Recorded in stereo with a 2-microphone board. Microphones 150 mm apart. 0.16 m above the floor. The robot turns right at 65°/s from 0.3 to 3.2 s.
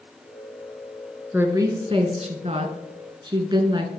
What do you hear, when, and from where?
1.3 s a woman speaking: 165° right, 1.4 m; by 3.9 s 45° right, 1.4 m